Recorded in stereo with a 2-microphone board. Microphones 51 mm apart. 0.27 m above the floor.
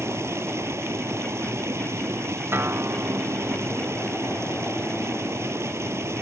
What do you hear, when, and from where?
0.0 s running water: 60° right (ahead or behind)
2.5 s a guitar: 45° right (ahead or behind)